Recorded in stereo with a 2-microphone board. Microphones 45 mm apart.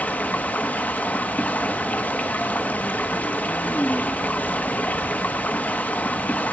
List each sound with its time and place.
0.0 s running water: 40° left (ahead or behind), 1.2 m